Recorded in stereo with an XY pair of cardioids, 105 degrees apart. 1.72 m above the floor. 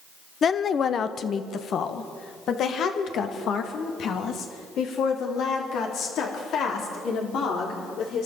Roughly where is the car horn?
I don't hear a car horn.